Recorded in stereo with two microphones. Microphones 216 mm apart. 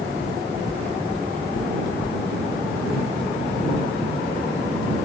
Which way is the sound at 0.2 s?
60° left (ahead or behind).